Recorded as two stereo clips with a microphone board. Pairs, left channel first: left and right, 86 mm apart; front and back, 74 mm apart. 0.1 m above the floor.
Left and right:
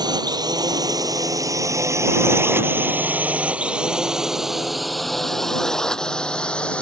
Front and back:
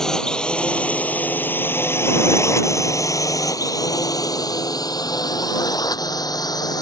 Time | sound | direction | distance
0.0 | a drone | 80° right | ?